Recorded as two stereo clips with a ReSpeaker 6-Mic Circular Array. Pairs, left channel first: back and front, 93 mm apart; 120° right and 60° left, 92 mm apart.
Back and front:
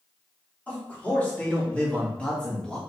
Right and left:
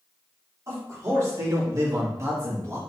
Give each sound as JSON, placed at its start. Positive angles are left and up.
{"t": 0.7, "sound": "a man speaking", "azimuth_deg": 110, "distance_m": 2.0}